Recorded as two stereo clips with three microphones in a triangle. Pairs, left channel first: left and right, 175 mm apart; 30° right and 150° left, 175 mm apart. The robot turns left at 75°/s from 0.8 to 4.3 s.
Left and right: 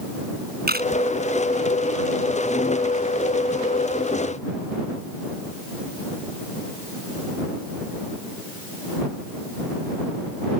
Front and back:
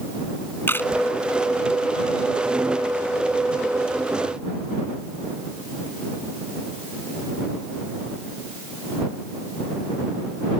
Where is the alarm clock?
No alarm clock in this recording.